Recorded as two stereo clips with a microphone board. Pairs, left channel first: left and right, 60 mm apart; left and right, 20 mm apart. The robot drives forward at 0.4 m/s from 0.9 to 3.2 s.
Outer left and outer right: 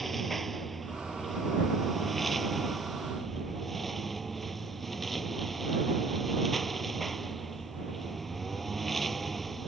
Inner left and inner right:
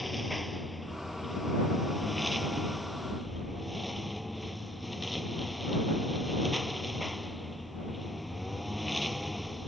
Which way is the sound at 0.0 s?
5° left (ahead or behind).